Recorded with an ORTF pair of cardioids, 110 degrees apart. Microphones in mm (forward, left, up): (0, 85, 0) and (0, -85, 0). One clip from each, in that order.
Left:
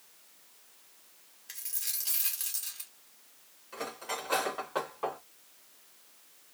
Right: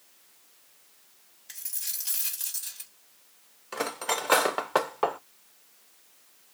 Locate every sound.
1.5 s a dropped coin: straight ahead, 1.7 m
3.7 s cutlery clinking: 65° right, 0.8 m